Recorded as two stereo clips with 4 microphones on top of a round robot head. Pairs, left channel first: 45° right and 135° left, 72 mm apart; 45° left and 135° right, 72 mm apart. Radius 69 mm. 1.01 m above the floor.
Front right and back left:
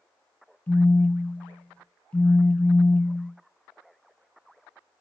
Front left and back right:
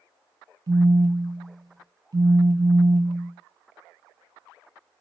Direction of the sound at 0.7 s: 115° right.